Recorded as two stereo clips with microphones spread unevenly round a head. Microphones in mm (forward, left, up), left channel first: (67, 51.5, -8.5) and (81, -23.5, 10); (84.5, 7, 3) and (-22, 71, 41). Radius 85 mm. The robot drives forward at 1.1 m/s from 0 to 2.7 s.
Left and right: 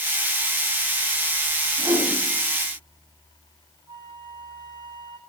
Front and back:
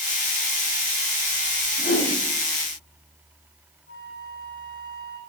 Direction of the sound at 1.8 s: 45° right.